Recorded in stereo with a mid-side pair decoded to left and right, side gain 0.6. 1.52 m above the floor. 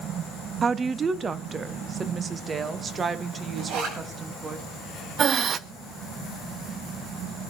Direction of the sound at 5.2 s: 45° right.